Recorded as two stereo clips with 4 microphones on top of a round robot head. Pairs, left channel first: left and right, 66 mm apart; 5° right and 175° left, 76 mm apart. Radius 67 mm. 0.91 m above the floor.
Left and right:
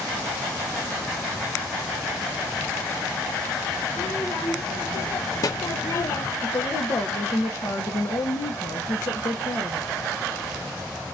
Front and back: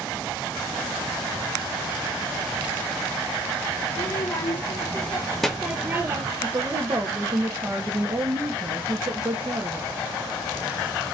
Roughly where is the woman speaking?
Behind left.